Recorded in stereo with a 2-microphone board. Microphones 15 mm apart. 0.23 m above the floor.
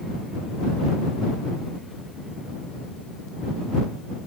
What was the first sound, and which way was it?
Only background noise.